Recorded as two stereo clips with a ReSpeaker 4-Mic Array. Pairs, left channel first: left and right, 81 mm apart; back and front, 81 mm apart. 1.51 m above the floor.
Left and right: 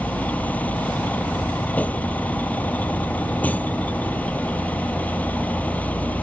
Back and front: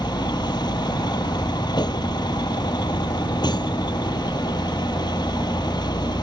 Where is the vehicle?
160° left.